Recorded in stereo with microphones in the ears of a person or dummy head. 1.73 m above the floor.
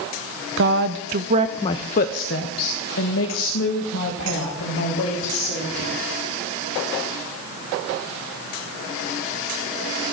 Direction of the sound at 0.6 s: 60° right (ahead or behind).